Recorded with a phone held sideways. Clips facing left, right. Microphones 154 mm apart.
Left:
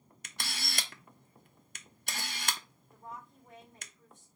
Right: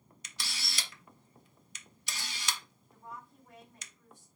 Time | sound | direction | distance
0.2 | a camera shutter | 60° left (ahead or behind) | 0.5 m
2.9 | a woman speaking | 25° left (ahead or behind) | 2.5 m